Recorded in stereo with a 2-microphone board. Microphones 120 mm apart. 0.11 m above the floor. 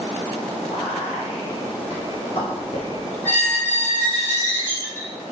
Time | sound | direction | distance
0.6 | whispering | 50° left (ahead or behind) | 2 m
3.2 | a squeak | 15° left (ahead or behind) | 2.5 m